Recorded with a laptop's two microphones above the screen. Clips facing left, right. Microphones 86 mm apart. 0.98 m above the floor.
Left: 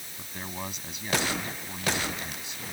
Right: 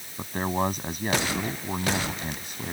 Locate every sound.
0.2 s a man speaking: 45° right (ahead or behind)